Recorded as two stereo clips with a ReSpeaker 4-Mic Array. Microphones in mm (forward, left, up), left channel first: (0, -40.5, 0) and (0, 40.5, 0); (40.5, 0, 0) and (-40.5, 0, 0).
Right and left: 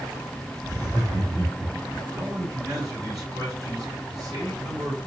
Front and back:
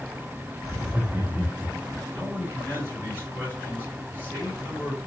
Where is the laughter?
95° left, 1.9 m; by 2.0 s 130° left, 1.8 m.